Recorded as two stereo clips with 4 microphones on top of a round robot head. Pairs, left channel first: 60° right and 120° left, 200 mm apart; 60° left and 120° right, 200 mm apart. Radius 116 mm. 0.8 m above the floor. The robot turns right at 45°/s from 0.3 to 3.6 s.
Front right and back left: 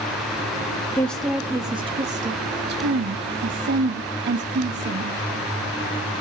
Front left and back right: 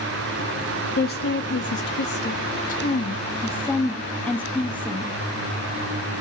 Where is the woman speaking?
20° left, 1.4 m; by 5.2 s 140° left, 1.4 m.